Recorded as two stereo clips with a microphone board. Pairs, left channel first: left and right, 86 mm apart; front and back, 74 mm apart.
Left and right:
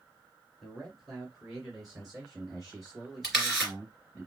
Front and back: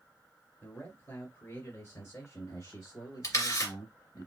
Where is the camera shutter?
5° right, 2.5 m.